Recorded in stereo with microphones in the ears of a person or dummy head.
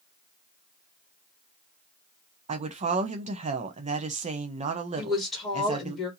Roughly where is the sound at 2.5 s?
Right.